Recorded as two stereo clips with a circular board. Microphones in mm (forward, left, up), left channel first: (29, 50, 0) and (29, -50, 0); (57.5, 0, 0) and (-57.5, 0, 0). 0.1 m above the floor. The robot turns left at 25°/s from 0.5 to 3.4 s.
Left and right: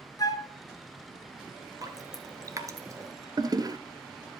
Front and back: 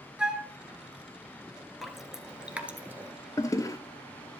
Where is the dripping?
90° right, 1.1 m; by 3.1 s 120° right, 1.1 m.